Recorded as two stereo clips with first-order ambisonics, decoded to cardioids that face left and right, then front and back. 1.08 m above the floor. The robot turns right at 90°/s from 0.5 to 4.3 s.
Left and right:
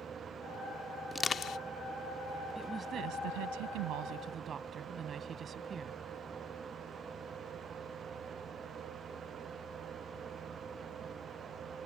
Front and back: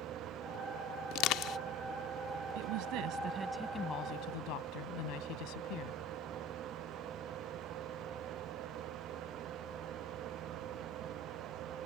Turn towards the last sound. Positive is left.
turn(degrees=-25)